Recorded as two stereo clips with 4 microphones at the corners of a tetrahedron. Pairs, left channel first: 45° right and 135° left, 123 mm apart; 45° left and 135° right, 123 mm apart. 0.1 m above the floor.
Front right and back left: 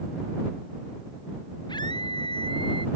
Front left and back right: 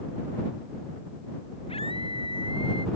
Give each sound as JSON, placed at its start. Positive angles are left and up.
{"t": 1.7, "sound": "a scream", "azimuth_deg": 5}